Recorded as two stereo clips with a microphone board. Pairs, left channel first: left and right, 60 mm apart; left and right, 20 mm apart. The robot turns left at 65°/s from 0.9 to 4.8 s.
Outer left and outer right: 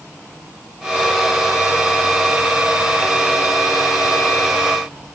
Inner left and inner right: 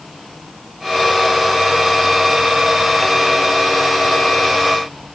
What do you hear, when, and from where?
Only background noise.